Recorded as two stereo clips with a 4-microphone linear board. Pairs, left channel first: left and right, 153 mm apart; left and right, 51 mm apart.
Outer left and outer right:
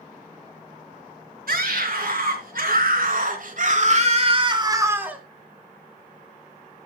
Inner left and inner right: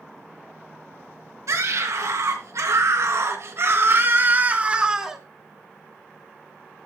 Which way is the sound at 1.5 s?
75° right (ahead or behind).